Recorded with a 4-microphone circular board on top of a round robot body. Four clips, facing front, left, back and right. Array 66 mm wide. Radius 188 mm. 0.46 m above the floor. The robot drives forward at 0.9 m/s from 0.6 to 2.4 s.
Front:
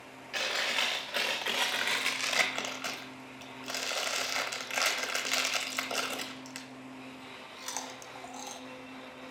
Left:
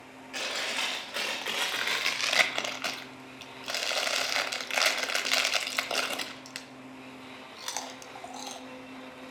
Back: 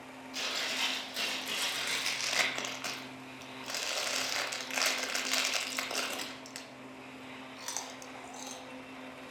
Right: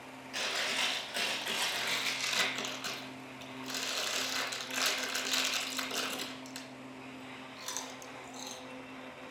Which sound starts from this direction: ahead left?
Chewing, at 0.3 s.